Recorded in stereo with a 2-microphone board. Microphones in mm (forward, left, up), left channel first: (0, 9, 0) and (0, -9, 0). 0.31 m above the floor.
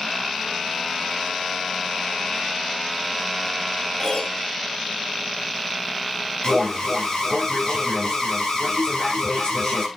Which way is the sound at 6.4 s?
45° left (ahead or behind).